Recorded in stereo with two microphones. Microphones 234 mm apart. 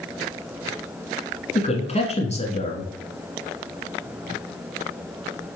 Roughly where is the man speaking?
Left.